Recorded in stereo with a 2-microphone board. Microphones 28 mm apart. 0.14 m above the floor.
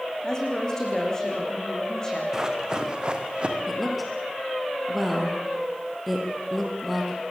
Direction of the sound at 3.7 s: Centre (ahead or behind).